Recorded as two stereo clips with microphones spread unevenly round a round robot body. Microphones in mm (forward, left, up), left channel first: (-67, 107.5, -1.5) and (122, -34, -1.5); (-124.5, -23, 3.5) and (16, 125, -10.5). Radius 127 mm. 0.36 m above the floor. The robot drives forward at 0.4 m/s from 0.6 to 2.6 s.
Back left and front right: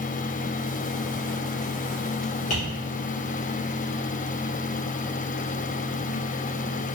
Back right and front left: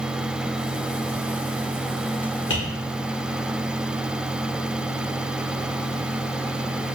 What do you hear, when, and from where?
2.5 s tapping: 155° right, 1.8 m